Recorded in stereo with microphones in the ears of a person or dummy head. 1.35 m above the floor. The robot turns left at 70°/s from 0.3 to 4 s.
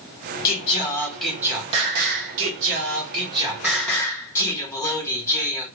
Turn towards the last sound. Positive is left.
turn(degrees=165)